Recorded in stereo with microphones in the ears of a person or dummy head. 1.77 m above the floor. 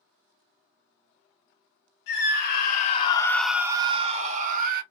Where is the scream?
70° left (ahead or behind), 0.9 m; by 4.8 s 45° right (ahead or behind), 1.0 m.